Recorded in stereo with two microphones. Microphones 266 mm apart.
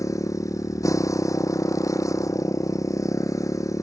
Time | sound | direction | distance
0.0 | a motorcycle | 10° left (ahead or behind) | ?